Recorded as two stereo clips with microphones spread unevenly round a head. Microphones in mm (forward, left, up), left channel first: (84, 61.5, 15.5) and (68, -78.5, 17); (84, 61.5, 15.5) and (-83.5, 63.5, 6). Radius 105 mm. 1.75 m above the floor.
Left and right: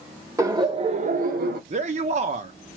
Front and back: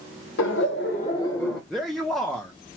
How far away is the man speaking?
About 0.8 m.